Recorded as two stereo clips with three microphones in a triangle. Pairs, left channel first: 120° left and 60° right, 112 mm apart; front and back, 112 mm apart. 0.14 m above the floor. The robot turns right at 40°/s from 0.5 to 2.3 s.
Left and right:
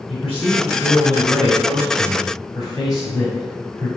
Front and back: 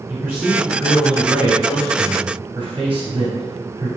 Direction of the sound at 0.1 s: 85° left.